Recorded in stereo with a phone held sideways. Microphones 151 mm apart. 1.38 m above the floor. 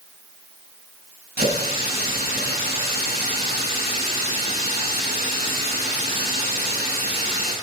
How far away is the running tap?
About 5.5 m.